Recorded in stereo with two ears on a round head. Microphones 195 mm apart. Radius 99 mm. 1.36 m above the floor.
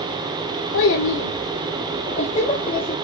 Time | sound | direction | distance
0.7 | a child speaking | 60° left (ahead or behind) | 0.8 m